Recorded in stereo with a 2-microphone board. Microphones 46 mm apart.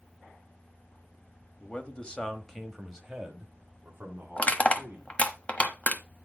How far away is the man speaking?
About 1.1 m.